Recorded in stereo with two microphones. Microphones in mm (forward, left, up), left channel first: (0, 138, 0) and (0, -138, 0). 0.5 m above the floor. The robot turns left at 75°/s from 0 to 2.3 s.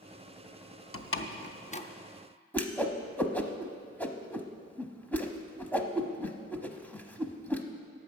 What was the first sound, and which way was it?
A door slam, 55° left (ahead or behind).